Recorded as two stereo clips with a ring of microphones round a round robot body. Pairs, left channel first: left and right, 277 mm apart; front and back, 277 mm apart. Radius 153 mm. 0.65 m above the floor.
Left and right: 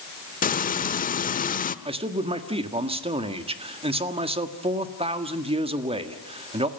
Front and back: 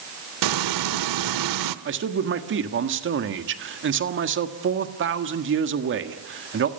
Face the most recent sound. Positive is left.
turn(degrees=-155)